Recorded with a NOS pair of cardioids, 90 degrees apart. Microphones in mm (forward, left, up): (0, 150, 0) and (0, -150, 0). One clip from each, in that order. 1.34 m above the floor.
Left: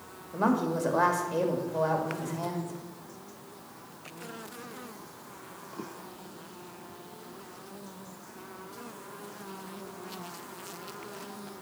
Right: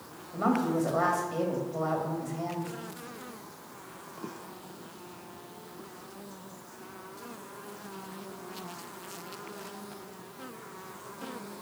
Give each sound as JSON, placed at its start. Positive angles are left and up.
{"t": 0.3, "sound": "a woman speaking", "azimuth_deg": 25, "distance_m": 2.0}